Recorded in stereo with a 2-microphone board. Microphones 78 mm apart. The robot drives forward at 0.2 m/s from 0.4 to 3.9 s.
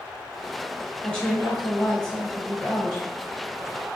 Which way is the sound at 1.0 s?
15° left (ahead or behind).